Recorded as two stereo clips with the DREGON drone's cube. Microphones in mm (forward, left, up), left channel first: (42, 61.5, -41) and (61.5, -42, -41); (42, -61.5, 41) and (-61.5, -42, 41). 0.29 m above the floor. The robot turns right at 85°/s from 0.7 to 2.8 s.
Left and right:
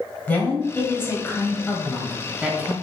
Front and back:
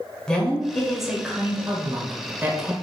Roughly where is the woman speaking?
Ahead left.